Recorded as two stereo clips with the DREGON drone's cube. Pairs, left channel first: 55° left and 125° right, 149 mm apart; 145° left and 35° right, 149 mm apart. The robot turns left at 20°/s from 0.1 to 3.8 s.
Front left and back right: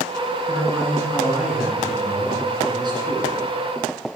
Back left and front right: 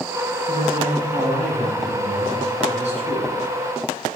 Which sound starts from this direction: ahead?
A man speaking, at 0.5 s.